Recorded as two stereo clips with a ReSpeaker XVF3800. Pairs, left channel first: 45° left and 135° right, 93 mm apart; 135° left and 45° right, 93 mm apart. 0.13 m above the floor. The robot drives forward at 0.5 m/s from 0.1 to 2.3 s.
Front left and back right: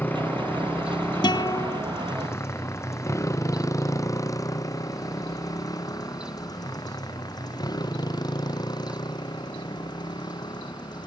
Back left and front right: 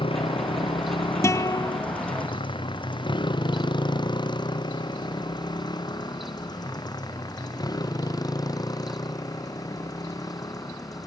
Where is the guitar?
75° left; by 1.8 s 95° left.